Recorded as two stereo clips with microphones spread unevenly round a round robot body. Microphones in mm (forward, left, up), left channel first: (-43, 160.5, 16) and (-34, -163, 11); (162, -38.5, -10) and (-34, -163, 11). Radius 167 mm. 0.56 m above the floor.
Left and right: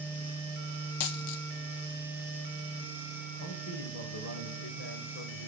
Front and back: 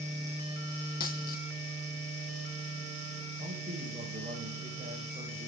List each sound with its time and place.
1.0 s a dropped coin: 95° left, 1.2 m
3.4 s a man speaking: 140° left, 2.5 m